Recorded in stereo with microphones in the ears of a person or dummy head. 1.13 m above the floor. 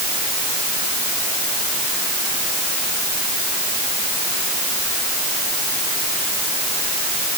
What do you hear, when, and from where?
Only background noise.